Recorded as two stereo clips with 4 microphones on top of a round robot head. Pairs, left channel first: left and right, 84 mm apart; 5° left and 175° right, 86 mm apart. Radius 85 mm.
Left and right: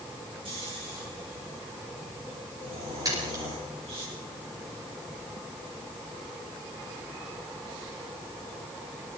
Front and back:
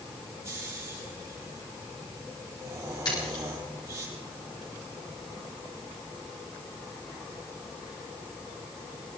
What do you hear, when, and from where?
0.5 s snoring: 115° right, 8 m
3.0 s a splash: 45° right, 8 m